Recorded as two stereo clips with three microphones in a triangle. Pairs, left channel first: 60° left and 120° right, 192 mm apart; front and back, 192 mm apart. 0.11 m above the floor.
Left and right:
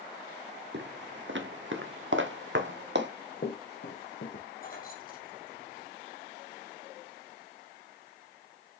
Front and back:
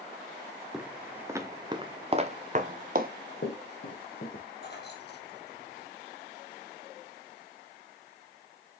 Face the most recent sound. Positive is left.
turn(degrees=25)